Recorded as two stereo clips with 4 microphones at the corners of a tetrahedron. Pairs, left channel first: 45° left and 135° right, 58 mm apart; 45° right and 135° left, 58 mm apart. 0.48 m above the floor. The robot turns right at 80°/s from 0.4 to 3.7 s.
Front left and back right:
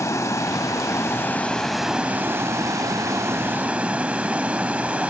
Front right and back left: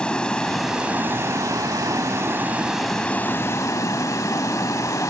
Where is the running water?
30° left, 0.8 m; by 5.1 s 70° right, 0.8 m.